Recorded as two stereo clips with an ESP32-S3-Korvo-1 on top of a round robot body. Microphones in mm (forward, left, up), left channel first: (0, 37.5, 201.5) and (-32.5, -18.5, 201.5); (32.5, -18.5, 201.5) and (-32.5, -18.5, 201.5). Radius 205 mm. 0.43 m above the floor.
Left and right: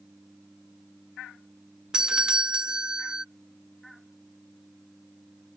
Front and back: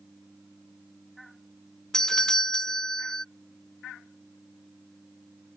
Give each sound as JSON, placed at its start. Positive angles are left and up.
{"t": 1.9, "sound": "a doorbell", "azimuth_deg": -65}